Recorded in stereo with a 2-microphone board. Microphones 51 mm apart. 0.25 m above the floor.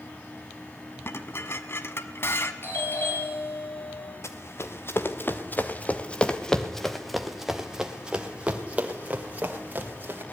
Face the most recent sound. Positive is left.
turn(degrees=-35)  # may be behind; listen again after turning